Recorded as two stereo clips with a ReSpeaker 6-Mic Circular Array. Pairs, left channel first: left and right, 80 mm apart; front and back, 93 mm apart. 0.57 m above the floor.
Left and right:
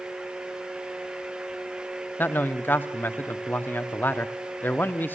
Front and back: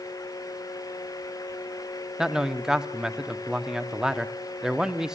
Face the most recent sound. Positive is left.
turn(degrees=105)